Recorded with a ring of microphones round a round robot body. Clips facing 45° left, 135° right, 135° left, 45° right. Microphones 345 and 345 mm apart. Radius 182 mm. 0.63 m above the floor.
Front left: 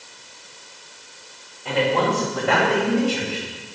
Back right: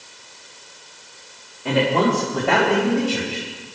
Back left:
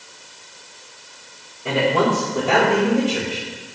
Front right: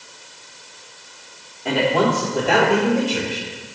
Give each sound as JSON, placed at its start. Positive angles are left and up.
{"t": 1.6, "sound": "a man speaking", "azimuth_deg": -145, "distance_m": 3.5}